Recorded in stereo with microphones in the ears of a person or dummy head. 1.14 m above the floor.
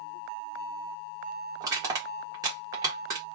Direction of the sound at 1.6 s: 15° right (ahead or behind).